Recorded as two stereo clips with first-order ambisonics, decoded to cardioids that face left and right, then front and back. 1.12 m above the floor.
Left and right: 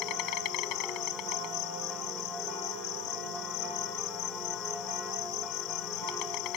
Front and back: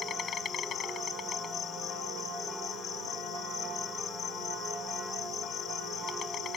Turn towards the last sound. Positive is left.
turn(degrees=60)